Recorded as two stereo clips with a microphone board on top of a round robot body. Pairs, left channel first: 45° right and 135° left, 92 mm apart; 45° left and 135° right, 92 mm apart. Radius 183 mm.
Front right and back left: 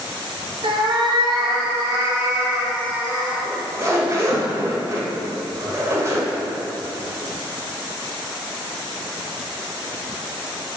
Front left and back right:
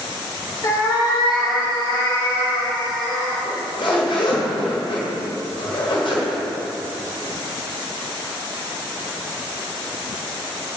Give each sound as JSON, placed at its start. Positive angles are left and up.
{"t": 0.6, "sound": "a cat meowing", "azimuth_deg": 105, "distance_m": 1.4}
{"t": 3.5, "sound": "a zipper", "azimuth_deg": 75, "distance_m": 2.0}